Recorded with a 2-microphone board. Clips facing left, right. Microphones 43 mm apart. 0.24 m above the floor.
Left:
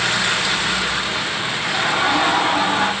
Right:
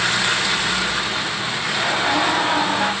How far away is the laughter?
About 1.6 m.